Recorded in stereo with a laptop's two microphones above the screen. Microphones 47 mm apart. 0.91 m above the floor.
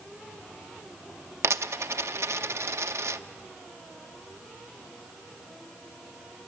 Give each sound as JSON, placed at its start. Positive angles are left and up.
{"t": 1.4, "sound": "a dropped coin", "side_deg": -75, "distance_m": 0.6}